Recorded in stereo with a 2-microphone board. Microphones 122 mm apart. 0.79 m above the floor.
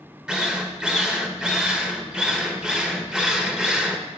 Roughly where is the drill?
Centre.